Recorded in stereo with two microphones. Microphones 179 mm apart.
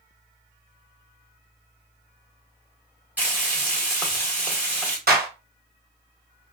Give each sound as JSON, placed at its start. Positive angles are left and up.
{"t": 3.2, "sound": "frying", "side_deg": -10, "distance_m": 1.1}
{"t": 5.1, "sound": "a clap", "side_deg": -55, "distance_m": 1.4}